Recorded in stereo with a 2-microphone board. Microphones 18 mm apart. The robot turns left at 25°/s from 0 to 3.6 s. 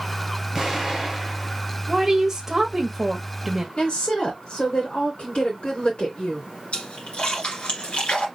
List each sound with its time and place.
0.6 s an explosion: 20° right (ahead or behind), 2.5 m; by 1.6 s 5° left (ahead or behind), 2.5 m
1.9 s a woman speaking: 25° right (ahead or behind), 1.2 m; by 3.7 s 15° right (ahead or behind), 1.2 m
3.8 s a woman speaking: 65° left (ahead or behind), 3 m
6.7 s a splash: 80° left, 2 m